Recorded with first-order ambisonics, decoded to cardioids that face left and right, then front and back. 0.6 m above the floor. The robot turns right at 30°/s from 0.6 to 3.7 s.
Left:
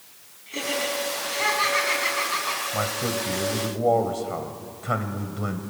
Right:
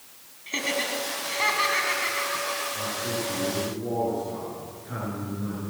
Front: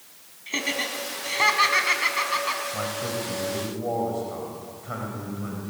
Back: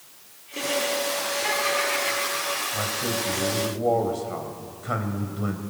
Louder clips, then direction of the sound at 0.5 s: Even, back 1 dB; 30° right.